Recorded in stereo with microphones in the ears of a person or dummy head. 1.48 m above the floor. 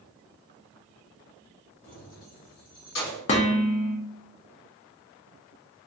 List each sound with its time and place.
1.8 s keys jangling: 50° left (ahead or behind), 0.9 m; by 3.2 s 60° left (ahead or behind), 1.6 m
3.3 s dishes clattering: 40° left (ahead or behind), 0.6 m